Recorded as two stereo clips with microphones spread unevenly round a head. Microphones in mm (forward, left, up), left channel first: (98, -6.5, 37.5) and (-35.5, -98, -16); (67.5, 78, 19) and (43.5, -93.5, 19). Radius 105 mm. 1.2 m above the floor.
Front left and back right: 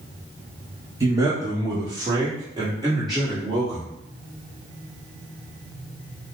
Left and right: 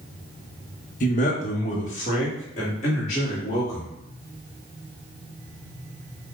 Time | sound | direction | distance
1.0 | a man speaking | 140° left | 0.7 m